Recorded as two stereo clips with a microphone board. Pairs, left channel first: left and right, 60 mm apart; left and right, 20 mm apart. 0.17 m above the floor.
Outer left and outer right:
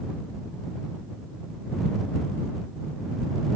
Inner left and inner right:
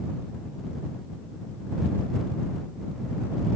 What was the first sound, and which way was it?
Only background noise.